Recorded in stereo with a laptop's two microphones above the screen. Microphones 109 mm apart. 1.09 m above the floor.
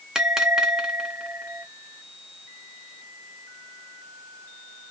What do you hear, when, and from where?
0.1 s a bell: 5° right (ahead or behind), 0.6 m